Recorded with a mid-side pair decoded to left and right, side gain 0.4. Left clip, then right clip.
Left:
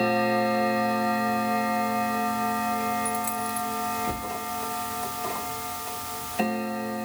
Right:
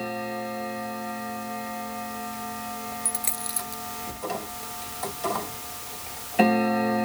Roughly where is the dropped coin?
Ahead right.